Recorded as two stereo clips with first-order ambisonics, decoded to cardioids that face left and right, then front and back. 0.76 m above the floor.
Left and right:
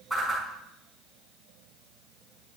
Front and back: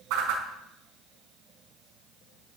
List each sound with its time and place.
0.1 s a whoosh: 175° right, 4.5 m